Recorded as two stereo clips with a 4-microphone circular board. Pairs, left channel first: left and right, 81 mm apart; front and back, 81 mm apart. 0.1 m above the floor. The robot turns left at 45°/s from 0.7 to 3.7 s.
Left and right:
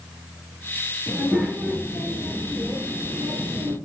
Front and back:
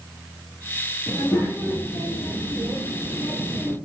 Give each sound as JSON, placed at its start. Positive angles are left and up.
{"t": 1.1, "sound": "a child speaking", "azimuth_deg": 30, "distance_m": 1.5}